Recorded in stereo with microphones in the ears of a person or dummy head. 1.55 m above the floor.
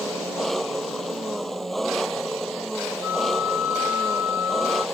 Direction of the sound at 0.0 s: Centre (ahead or behind).